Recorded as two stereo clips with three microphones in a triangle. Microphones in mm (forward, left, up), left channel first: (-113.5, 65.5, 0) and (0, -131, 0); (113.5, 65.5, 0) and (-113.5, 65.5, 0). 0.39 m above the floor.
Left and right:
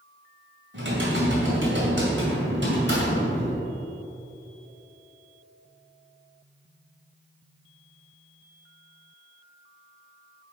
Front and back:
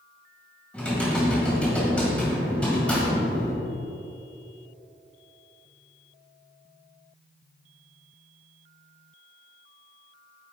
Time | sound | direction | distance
0.7 | typing on a keyboard | 85° right | 1.9 m